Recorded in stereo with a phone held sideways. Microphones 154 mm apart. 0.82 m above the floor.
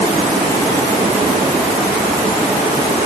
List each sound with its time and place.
Only background noise.